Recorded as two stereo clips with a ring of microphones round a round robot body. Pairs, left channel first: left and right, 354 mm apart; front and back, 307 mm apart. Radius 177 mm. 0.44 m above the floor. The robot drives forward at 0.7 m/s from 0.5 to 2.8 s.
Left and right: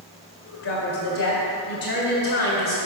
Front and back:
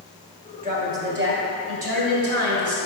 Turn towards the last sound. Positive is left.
turn(degrees=150)